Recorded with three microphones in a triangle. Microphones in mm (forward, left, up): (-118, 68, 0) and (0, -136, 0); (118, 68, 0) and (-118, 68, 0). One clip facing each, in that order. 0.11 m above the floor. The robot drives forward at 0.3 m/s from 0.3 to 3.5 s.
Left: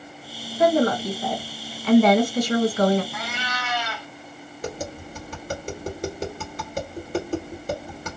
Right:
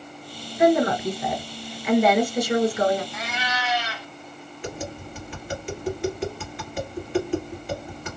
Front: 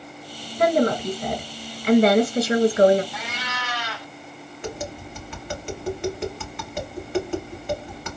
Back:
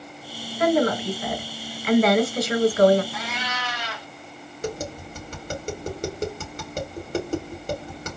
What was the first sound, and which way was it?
A woman speaking, 5° left.